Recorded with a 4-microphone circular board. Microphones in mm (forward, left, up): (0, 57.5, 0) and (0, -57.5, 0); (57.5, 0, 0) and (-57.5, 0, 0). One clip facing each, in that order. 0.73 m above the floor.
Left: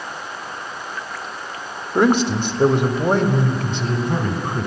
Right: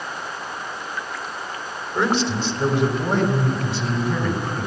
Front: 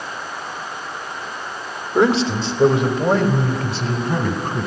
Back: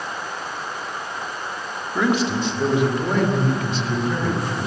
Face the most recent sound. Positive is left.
turn(degrees=50)